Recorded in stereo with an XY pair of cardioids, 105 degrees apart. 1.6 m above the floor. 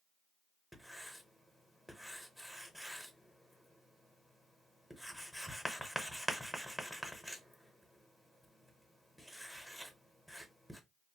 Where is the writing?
Straight ahead, 0.7 m.